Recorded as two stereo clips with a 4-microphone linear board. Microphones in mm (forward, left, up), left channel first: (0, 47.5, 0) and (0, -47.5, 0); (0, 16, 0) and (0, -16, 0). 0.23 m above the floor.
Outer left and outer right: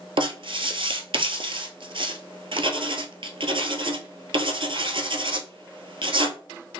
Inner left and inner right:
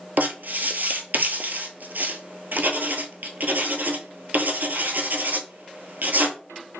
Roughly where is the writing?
Right.